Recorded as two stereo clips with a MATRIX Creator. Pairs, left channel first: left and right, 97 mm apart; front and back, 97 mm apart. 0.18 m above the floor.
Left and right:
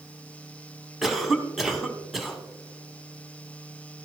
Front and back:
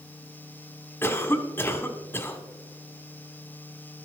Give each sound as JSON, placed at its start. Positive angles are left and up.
{"t": 1.0, "sound": "a cough", "azimuth_deg": -5, "distance_m": 1.0}